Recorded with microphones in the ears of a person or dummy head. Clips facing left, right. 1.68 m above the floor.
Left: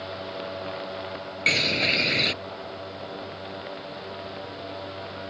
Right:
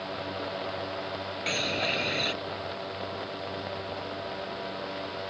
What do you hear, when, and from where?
1.5 s a bird: 30° left (ahead or behind)